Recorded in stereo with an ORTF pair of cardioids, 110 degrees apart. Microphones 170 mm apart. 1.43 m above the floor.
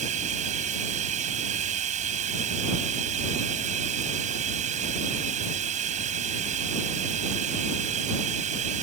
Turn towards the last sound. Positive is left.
turn(degrees=-45)